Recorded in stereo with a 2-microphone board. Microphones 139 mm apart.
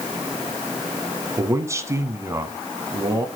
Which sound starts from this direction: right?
A man speaking, at 1.4 s.